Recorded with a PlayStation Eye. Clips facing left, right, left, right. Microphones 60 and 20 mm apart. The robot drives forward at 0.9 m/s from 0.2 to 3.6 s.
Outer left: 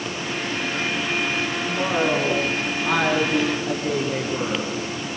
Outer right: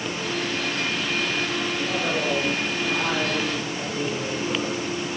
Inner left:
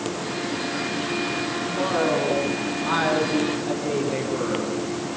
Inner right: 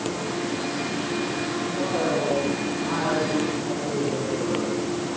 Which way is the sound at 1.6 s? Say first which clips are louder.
Outer left 4 dB, inner left 3 dB; 65° left (ahead or behind).